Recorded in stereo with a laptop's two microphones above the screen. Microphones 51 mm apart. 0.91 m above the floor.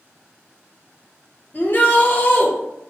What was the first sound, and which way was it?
A shout, 35° left (ahead or behind).